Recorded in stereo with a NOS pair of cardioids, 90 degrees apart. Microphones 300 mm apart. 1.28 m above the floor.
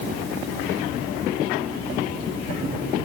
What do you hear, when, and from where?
Only background noise.